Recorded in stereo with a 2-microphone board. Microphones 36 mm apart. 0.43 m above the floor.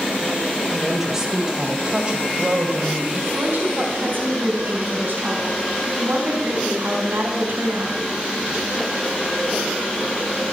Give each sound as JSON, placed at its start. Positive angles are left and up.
{"t": 0.7, "sound": "a woman speaking", "side_deg": -10, "distance_m": 2.5}
{"t": 3.3, "sound": "a woman speaking", "side_deg": -65, "distance_m": 4.0}